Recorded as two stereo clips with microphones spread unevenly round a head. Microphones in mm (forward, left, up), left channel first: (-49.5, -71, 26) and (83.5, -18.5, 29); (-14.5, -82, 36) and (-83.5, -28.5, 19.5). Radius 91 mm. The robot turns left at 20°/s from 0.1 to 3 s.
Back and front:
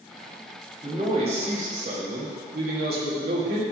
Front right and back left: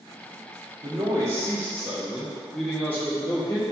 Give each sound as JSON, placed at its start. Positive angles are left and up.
{"t": 0.8, "sound": "a man speaking", "azimuth_deg": 85, "distance_m": 1.4}